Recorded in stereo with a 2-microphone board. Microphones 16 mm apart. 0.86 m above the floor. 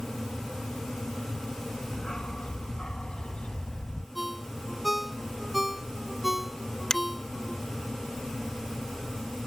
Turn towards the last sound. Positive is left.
turn(degrees=45)  # may be behind; listen again after turning